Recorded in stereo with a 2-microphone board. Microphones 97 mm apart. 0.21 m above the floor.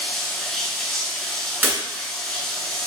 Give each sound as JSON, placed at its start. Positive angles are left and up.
{"t": 0.0, "sound": "running water", "side_deg": 5, "distance_m": 0.7}
{"t": 1.6, "sound": "breaking glass", "side_deg": -20, "distance_m": 1.4}